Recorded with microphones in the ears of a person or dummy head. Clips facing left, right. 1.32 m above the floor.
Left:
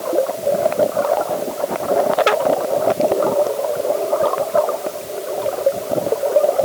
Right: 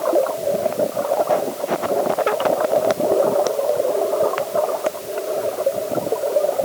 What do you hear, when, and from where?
Only background noise.